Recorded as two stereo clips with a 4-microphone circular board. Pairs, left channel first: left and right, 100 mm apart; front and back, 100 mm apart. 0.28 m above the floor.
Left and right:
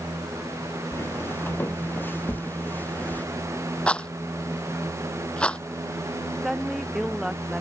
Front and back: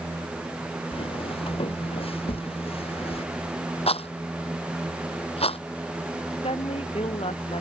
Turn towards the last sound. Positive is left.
turn(degrees=-5)